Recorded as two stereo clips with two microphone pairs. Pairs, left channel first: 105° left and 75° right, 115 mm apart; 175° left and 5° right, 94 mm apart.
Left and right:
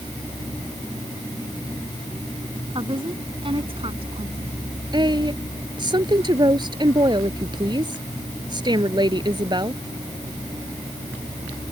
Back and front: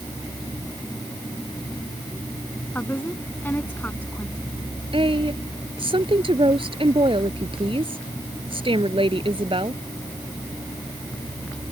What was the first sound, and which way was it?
A woman speaking, 115° right.